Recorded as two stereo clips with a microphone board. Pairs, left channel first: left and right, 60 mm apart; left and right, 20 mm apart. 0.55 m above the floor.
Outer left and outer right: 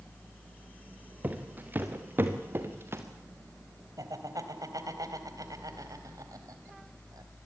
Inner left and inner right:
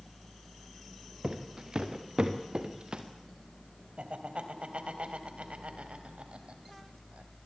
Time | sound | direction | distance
1.2 | footsteps | 30° right (ahead or behind) | 4 m
4.0 | laughter | 70° right (ahead or behind) | 3.5 m